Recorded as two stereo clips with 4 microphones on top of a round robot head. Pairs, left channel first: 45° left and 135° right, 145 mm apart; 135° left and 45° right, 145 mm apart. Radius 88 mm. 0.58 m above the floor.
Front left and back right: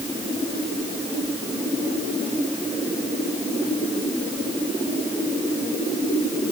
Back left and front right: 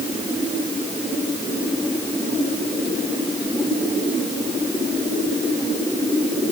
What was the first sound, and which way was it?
Only background noise.